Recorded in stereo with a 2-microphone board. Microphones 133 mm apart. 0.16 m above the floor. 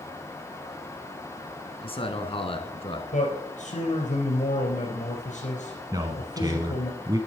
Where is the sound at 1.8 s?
45° left (ahead or behind), 1.8 m.